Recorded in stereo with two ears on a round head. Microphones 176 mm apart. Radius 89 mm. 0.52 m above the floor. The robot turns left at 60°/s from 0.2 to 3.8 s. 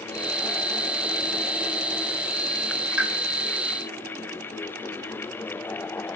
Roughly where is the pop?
Centre.